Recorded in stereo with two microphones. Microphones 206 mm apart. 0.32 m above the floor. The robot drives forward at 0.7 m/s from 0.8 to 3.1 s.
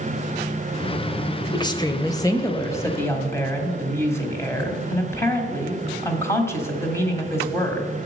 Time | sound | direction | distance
1.5 | a woman speaking | 20° left (ahead or behind) | 0.9 m